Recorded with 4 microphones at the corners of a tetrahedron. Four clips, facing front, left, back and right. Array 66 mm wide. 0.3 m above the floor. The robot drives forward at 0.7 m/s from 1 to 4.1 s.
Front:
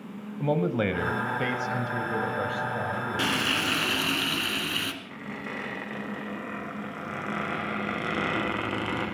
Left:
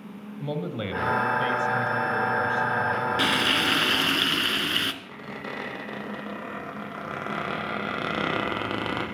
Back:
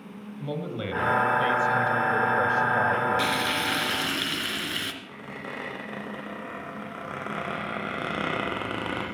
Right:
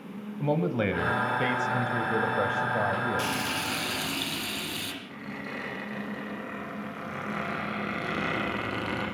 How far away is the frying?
About 1.7 m.